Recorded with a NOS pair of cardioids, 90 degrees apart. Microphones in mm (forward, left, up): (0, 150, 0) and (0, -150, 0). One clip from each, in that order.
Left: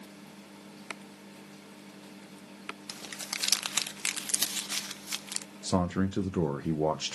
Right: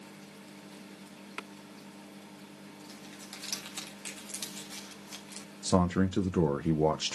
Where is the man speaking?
10° right, 0.6 m.